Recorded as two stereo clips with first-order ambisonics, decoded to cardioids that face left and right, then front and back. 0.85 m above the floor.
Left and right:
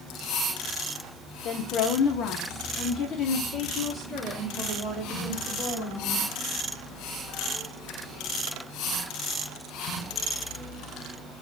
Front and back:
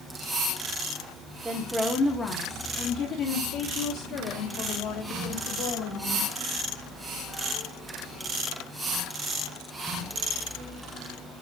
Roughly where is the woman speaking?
Left.